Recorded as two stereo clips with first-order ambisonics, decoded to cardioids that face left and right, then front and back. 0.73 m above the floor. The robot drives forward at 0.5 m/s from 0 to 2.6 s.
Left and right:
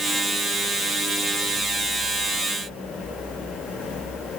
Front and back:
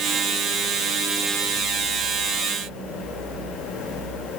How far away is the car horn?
I don't hear a car horn.